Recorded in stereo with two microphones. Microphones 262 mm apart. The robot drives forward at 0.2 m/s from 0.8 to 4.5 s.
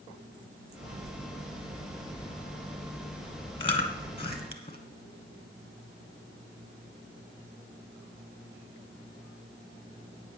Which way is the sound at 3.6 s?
20° left (ahead or behind).